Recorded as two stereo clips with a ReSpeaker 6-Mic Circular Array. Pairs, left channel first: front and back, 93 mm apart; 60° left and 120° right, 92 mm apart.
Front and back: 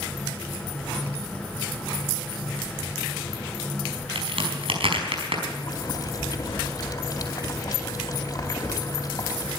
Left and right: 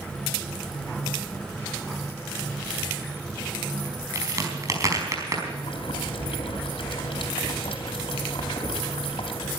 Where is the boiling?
50° left, 3 m.